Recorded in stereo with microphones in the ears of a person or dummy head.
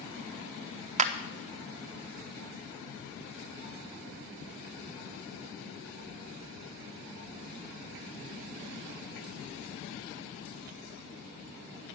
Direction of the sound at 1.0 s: 30° right (ahead or behind).